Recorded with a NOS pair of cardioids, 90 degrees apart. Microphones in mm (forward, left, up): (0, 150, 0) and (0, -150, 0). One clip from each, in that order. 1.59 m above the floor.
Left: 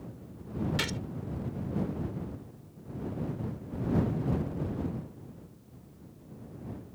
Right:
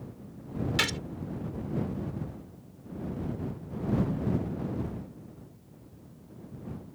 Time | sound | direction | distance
0.8 | a gunshot | 35° right | ?